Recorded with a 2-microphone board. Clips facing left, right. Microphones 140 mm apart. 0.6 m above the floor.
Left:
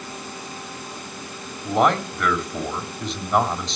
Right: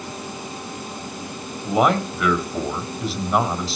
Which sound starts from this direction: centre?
A man speaking, at 1.6 s.